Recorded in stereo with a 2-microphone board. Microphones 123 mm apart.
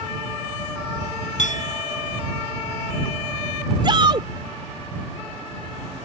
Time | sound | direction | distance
1.4 | a clink | 80° left | ?
3.8 | a shout | 40° right (ahead or behind) | ?